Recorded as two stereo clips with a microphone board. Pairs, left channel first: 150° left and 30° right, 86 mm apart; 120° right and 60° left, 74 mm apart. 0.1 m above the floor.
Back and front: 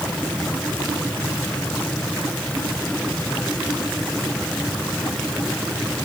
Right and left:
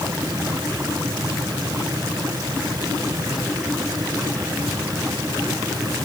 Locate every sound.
Only background noise.